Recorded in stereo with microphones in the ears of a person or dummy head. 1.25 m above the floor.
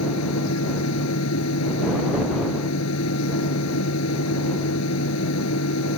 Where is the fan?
80° left.